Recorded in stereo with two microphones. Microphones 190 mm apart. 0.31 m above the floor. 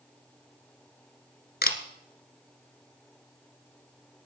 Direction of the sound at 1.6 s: 55° left (ahead or behind).